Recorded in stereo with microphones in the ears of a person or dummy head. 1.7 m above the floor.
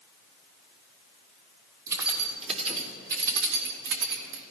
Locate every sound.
1.9 s keys jangling: 20° right (ahead or behind), 3 m; by 4.4 s 70° right (ahead or behind), 2.5 m